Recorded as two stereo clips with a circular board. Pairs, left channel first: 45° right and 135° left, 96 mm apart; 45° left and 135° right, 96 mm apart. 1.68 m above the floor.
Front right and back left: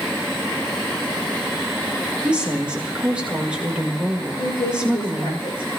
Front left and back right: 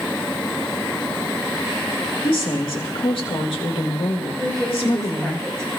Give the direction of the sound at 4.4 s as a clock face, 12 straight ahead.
1 o'clock.